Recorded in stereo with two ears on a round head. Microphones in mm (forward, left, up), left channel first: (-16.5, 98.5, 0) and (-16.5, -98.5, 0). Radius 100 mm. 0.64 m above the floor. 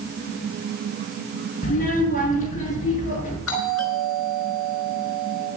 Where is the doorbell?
65° left (ahead or behind), 4.5 m.